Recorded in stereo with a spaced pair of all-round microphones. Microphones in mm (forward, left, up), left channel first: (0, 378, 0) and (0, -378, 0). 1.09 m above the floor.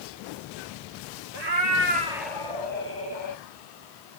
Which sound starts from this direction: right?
A cat meowing, at 1.3 s.